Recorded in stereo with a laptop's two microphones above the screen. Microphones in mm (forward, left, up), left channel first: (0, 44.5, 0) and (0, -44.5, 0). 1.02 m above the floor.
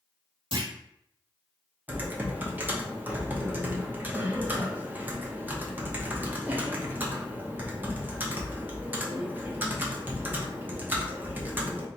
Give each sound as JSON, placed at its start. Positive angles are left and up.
{"t": 0.5, "sound": "a clunk", "side_deg": -70, "distance_m": 1.2}
{"t": 1.9, "sound": "typing on a keyboard", "side_deg": -20, "distance_m": 0.7}